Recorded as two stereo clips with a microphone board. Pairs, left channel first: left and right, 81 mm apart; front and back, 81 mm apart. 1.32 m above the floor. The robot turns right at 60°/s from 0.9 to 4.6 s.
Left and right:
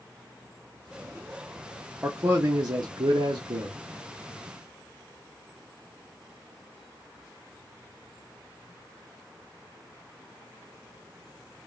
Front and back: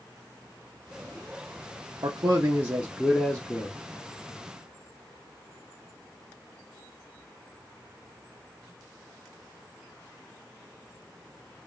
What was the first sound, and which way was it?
A man speaking, 160° right.